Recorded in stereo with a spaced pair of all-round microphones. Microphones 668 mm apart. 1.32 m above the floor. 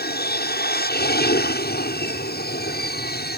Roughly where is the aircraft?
Centre.